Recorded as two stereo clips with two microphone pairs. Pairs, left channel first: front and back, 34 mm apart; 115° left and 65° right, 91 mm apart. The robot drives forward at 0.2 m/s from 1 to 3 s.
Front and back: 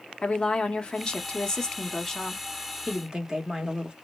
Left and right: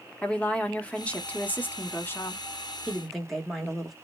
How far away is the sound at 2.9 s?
About 0.9 m.